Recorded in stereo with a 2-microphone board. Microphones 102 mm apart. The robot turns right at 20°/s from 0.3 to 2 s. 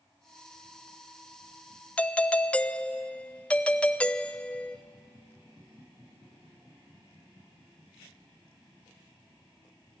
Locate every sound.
2.0 s a doorbell: 15° left (ahead or behind), 0.5 m; by 4.8 s 10° left (ahead or behind), 0.5 m